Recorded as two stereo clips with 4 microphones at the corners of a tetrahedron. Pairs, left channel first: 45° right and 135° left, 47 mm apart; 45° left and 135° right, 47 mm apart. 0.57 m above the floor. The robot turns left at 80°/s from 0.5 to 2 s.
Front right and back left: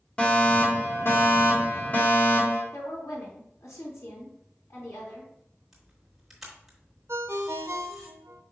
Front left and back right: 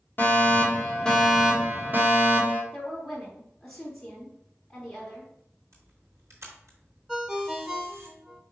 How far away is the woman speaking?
About 3.5 m.